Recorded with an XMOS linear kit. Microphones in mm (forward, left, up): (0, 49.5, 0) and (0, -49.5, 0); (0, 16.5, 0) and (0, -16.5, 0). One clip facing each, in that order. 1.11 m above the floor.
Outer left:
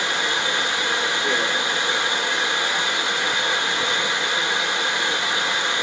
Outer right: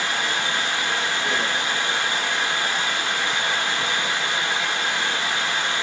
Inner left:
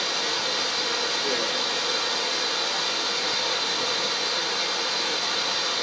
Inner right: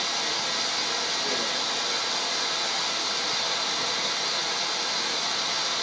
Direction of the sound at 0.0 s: 20° left (ahead or behind).